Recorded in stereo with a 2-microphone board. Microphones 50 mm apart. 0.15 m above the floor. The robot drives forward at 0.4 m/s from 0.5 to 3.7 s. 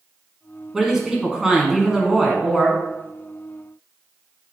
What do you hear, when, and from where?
0.7 s a woman speaking: 10° right (ahead or behind), 1.2 m